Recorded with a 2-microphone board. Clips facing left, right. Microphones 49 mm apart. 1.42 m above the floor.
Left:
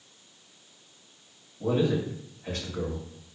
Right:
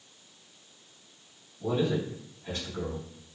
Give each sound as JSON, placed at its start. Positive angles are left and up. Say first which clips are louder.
{"t": 1.6, "sound": "a man speaking", "louder": "left 3 dB", "side_deg": 55, "distance_m": 1.1}